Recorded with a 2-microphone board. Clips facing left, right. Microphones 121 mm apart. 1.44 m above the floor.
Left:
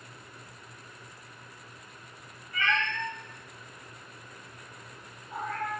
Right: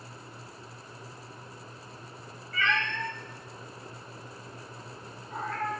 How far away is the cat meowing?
About 1.4 m.